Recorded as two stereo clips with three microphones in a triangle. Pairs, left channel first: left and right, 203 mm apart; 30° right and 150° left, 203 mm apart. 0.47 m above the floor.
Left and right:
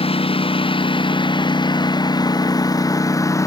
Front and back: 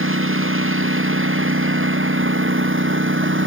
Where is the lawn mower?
155° left; by 3.5 s 165° left.